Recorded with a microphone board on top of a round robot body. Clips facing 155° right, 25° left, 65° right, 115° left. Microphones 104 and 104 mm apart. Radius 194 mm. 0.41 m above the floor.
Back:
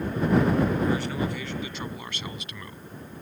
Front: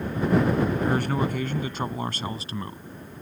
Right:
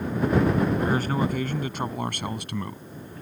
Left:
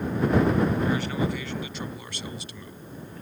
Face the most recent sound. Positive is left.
turn(degrees=-35)